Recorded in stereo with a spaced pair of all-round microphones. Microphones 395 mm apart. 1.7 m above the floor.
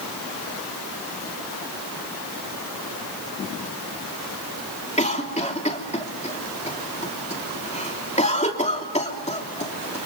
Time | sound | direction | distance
5.0 | a cough | 15° left (ahead or behind) | 3 m